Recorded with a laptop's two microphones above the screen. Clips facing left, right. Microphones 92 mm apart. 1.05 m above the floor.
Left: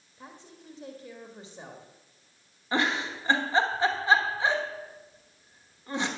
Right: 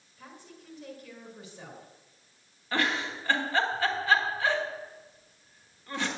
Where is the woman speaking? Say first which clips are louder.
Left 1 dB; 25° left (ahead or behind), 1.7 m.